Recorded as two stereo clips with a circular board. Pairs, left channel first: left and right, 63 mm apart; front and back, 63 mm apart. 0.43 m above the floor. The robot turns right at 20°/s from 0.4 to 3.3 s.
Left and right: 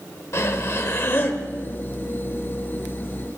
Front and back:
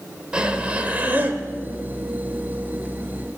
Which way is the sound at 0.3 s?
110° left.